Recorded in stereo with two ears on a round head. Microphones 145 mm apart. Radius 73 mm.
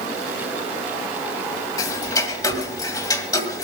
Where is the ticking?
20° left (ahead or behind), 2 m.